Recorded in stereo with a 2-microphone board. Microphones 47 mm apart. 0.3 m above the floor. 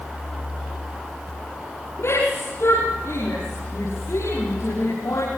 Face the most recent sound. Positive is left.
turn(degrees=85)